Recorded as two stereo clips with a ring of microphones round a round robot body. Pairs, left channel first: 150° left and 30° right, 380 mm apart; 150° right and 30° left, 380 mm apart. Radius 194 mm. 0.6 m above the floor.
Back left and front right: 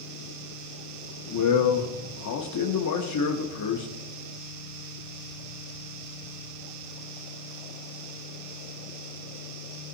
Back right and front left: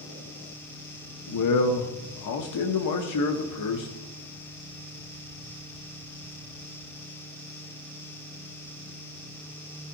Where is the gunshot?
No gunshot in this recording.